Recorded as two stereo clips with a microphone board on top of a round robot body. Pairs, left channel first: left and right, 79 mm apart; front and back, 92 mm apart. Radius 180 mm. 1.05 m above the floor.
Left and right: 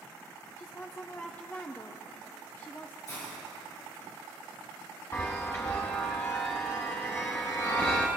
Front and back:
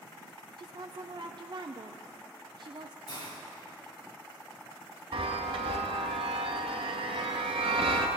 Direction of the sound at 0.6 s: 155° left.